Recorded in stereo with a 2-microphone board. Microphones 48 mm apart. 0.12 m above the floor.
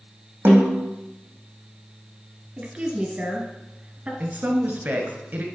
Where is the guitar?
I don't hear a guitar.